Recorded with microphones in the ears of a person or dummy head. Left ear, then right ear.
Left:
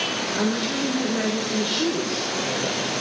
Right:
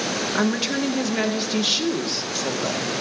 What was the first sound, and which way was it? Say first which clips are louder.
A woman speaking: right 1 dB; 75° right (ahead or behind).